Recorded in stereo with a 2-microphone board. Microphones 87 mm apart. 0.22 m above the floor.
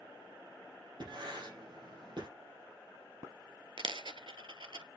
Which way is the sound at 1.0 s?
65° right (ahead or behind).